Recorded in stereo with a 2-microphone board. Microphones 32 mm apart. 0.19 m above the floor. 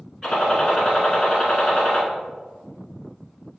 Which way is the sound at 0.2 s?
30° left (ahead or behind).